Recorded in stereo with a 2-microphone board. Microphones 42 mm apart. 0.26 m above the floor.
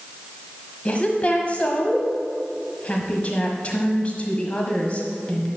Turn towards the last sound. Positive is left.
turn(degrees=35)  # may be behind; listen again after turning